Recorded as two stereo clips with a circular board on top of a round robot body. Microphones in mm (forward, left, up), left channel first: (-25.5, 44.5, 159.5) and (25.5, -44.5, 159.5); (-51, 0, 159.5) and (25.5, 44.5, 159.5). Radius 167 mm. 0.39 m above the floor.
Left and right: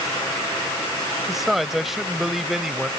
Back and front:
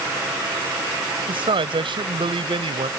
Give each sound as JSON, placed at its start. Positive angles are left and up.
{"t": 1.3, "sound": "a man speaking", "azimuth_deg": 25}